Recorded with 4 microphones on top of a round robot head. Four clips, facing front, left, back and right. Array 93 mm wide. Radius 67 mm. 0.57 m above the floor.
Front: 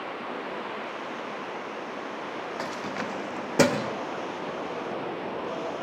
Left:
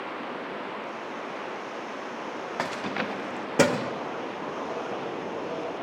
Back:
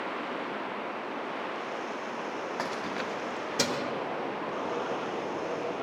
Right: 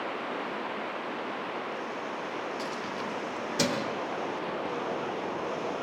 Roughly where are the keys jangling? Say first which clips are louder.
Left 4 dB, front 1 dB; left.